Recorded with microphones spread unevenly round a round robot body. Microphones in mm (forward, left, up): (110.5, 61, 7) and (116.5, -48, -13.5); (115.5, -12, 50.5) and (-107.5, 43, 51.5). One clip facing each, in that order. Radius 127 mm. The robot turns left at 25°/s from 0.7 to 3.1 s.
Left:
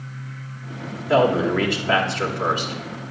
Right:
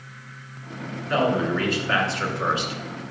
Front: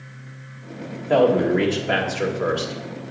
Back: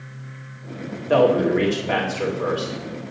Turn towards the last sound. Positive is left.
turn(degrees=40)